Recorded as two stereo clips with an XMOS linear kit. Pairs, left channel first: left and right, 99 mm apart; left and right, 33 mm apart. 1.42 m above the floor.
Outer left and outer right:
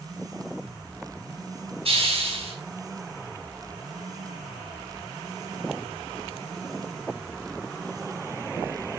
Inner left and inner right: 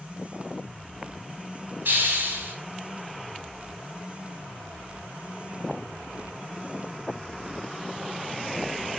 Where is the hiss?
70° right (ahead or behind), 5 m.